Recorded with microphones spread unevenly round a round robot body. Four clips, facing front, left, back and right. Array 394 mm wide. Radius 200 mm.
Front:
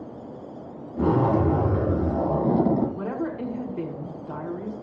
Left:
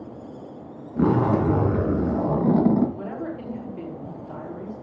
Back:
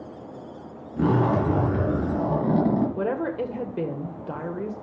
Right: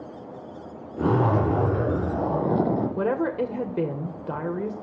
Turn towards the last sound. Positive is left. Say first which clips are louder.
# right 8 dB, back 3 dB
turn(degrees=-115)